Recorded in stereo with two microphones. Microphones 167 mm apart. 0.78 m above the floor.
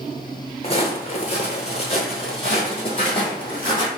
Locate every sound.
0.6 s footsteps: 35° left (ahead or behind), 0.9 m